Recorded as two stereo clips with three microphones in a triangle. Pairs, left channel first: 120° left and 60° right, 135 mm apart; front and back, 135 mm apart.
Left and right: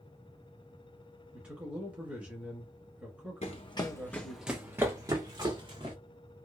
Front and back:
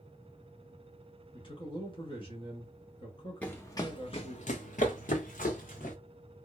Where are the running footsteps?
80° left, 0.6 m; by 6.0 s 10° right, 1.3 m.